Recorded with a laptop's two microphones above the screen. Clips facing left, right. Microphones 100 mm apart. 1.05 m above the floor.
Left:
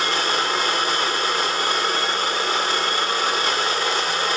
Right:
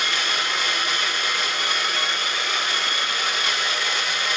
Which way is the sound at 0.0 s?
35° left (ahead or behind).